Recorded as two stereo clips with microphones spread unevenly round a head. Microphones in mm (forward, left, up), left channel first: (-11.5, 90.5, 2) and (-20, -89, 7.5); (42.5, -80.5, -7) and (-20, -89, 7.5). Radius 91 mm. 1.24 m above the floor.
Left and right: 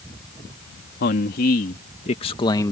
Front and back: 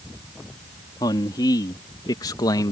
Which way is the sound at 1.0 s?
45° left.